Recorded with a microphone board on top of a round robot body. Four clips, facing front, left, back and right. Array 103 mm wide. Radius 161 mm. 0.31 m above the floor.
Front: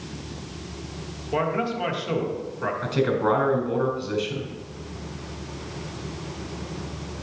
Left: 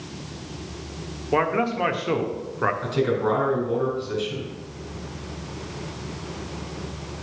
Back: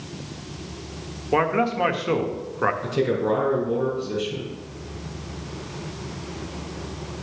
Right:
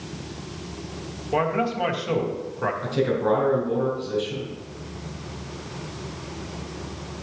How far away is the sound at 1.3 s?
About 1.4 m.